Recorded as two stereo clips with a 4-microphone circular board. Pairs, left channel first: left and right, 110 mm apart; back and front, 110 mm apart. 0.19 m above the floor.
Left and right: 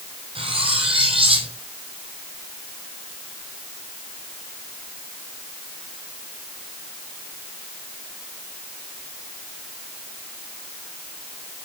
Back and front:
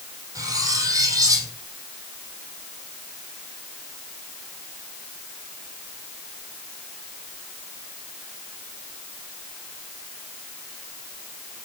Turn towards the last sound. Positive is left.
turn(degrees=-60)